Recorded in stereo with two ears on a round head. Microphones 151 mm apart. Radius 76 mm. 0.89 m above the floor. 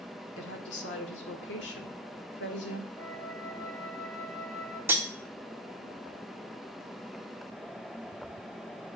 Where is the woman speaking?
75° left (ahead or behind), 2 m.